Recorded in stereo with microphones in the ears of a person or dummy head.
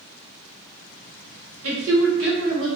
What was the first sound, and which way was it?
A woman speaking, 80° right.